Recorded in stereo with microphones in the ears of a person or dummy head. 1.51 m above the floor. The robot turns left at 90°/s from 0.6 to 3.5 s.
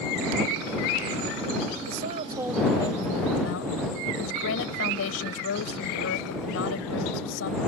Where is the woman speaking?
120° right; by 7.6 s 90° left.